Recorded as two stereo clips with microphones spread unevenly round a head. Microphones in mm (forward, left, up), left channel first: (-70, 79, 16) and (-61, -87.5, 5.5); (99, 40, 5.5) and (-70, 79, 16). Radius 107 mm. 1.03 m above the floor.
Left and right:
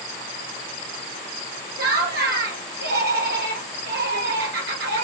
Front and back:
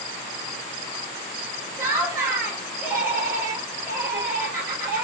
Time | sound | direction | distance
1.8 | laughter | 110° right | 1.4 m